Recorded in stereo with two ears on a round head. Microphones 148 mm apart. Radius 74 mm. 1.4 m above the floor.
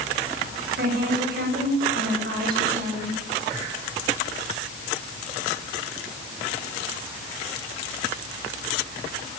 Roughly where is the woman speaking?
Right.